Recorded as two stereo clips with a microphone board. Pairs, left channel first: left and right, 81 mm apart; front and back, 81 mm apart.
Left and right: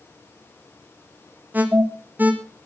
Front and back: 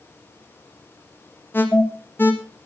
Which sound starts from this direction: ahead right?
An alarm, at 1.5 s.